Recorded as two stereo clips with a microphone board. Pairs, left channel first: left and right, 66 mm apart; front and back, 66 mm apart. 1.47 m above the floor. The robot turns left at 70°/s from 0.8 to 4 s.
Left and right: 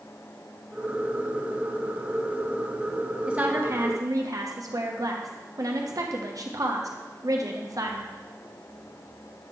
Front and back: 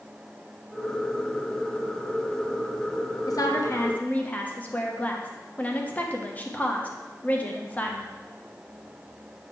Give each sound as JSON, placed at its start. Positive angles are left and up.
{"t": 3.3, "sound": "a woman speaking", "azimuth_deg": -15, "distance_m": 0.9}